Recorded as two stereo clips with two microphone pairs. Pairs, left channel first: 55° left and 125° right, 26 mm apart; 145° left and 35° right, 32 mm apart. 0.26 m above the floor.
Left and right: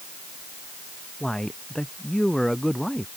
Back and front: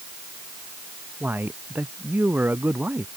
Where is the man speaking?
15° right; by 3.1 s 20° right.